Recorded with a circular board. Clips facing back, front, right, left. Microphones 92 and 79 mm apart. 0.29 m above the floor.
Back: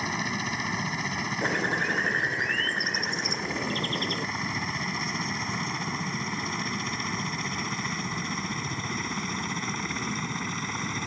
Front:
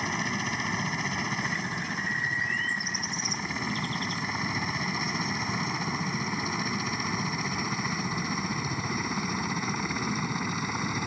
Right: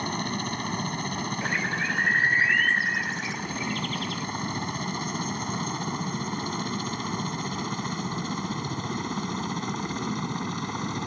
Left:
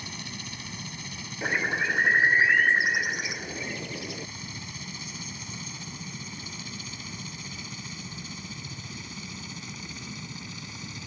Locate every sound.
0.0 s a helicopter: 95° right; by 11.1 s 80° right
1.4 s a bird: 160° left